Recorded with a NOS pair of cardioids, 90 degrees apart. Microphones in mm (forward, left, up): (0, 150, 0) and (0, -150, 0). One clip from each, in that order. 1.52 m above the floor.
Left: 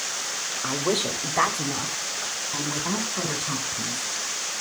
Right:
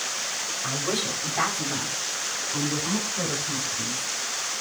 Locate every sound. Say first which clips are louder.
0.6 s a woman speaking: left 4 dB; 45° left, 2.5 m; by 4.1 s 55° left, 6.5 m